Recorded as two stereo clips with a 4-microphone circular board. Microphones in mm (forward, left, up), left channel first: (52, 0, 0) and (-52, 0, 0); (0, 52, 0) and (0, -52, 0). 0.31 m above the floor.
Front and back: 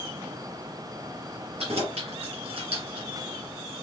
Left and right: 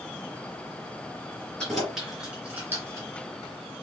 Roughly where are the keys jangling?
Behind.